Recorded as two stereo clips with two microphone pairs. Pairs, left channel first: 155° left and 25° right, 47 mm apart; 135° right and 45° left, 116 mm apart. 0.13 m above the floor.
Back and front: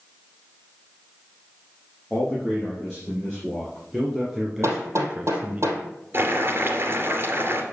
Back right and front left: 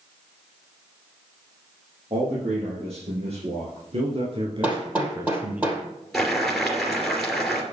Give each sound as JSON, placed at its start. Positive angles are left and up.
{"t": 2.1, "sound": "a man speaking", "azimuth_deg": 80, "distance_m": 5.5}
{"t": 4.6, "sound": "hammering", "azimuth_deg": -30, "distance_m": 3.0}
{"t": 6.1, "sound": "boiling", "azimuth_deg": -45, "distance_m": 2.5}